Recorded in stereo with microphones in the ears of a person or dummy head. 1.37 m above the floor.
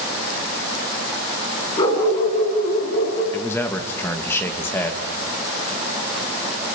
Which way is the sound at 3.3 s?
15° left (ahead or behind).